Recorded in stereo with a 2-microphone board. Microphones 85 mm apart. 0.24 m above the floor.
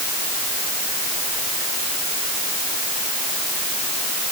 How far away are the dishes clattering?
No dishes clattering in this recording.